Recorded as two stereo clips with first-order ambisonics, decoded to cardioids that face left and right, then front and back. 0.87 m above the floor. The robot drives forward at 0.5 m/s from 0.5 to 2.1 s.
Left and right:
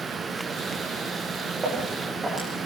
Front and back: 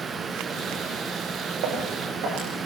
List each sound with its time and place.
1.6 s footsteps: 160° right, 8 m; by 2.7 s 165° right, 9.5 m